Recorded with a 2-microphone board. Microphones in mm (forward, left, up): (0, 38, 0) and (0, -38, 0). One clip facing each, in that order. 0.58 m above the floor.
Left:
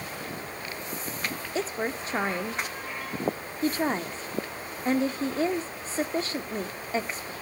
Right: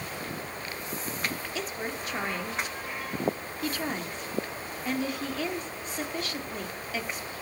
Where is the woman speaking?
30° left (ahead or behind), 1.1 m.